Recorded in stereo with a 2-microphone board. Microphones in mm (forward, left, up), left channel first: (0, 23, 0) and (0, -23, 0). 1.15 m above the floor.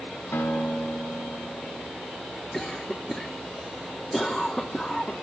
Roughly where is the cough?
Centre.